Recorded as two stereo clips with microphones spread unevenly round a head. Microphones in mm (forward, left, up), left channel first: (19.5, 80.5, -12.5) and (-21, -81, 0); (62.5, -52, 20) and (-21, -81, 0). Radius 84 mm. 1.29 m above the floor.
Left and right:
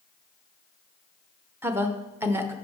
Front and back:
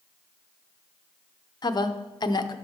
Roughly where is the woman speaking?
Ahead right.